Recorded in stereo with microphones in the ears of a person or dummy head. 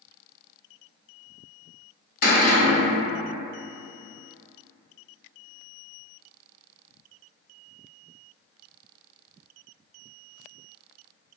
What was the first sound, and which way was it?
A cupboard door, 50° left (ahead or behind).